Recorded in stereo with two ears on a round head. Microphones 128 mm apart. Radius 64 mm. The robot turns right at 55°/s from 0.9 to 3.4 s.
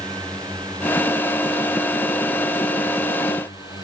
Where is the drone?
5° left (ahead or behind); by 3.8 s 30° left (ahead or behind).